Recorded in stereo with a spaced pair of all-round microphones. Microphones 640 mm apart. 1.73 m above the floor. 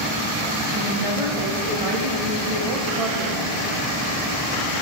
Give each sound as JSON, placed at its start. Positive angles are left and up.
{"t": 0.7, "sound": "a woman speaking", "side_deg": -55, "distance_m": 2.5}